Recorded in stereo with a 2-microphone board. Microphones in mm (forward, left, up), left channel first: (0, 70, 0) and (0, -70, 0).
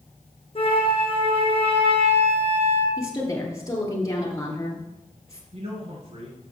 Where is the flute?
45° left (ahead or behind), 1.5 m.